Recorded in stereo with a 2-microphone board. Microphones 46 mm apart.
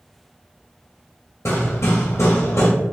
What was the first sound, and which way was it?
Hammering, 80° left.